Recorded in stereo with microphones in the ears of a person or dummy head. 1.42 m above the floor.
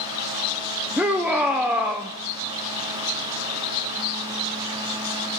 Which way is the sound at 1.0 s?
5° right (ahead or behind).